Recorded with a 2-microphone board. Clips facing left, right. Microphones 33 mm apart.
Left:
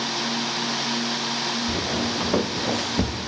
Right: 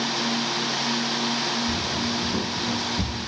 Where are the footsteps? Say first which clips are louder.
Left 1 dB; 85° left, 3 m; by 3.3 s 80° left, 1.9 m.